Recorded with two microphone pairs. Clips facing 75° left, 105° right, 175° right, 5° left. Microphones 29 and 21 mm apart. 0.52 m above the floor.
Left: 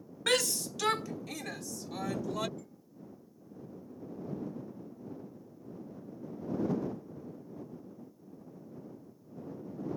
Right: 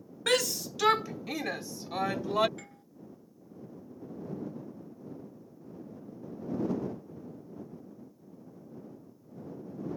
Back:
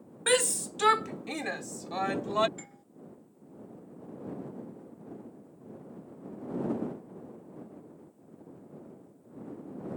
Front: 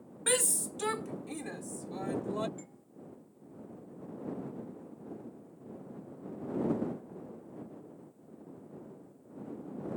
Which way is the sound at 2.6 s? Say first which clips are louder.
Right 2 dB, back 2 dB; 125° right.